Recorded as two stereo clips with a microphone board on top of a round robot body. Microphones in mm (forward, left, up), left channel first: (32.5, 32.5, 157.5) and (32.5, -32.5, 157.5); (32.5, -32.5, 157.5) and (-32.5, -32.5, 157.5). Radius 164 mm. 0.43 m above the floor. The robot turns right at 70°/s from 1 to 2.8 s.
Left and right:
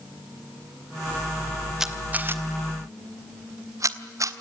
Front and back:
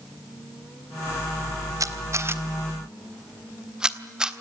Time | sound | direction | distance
1.8 | a camera shutter | 175° right | 1.6 m